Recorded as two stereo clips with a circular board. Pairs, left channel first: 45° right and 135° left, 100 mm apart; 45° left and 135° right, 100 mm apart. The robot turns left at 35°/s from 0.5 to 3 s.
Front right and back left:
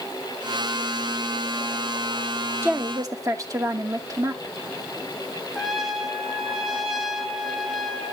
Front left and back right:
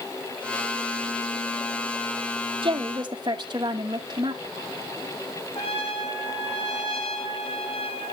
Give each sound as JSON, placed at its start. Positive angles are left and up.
{"t": 2.6, "sound": "a woman speaking", "azimuth_deg": -160, "distance_m": 1.0}
{"t": 5.5, "sound": "a trumpet", "azimuth_deg": 45, "distance_m": 1.9}